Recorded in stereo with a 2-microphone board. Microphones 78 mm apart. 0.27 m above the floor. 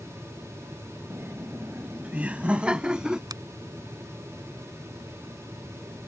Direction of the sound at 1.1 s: 30° right (ahead or behind).